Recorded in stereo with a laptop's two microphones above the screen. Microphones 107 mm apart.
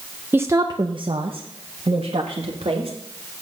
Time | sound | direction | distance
0.3 | a woman speaking | 20° right (ahead or behind) | 0.5 m